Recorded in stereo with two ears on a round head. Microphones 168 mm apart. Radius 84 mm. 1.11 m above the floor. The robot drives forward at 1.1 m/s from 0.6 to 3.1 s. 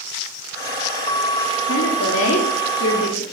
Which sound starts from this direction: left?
A woman speaking, at 1.6 s.